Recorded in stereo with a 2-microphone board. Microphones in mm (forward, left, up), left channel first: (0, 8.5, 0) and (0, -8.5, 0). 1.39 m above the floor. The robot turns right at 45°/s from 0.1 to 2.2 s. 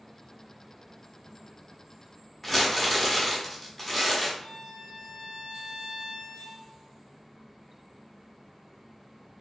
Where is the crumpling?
10° left (ahead or behind), 1.0 m.